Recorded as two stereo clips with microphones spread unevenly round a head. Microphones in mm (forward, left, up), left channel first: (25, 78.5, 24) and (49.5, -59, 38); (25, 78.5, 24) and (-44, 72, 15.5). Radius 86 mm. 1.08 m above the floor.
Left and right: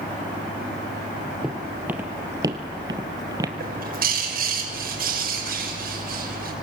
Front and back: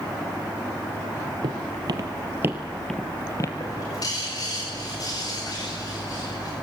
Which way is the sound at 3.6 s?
60° right.